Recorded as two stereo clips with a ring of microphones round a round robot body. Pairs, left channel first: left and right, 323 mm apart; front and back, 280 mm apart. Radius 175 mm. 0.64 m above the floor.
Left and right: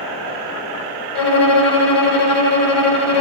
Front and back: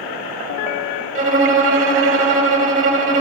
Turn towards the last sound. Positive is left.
turn(degrees=115)